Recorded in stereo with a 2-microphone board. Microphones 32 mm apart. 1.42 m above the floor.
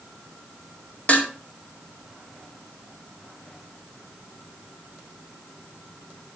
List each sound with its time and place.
1.1 s dishes clattering: 40° left (ahead or behind), 2 m